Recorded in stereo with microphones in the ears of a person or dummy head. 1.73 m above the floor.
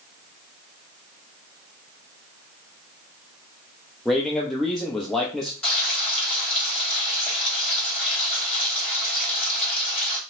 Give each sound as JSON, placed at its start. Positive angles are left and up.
{"t": 4.0, "sound": "a man speaking", "side_deg": 0, "distance_m": 0.6}
{"t": 5.6, "sound": "frying", "side_deg": 5, "distance_m": 2.5}